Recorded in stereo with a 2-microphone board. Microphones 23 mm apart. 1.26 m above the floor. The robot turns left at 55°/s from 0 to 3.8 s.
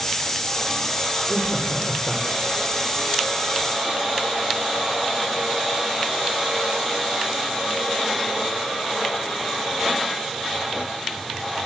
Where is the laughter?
155° right, 3 m; by 2.6 s 135° left, 3 m.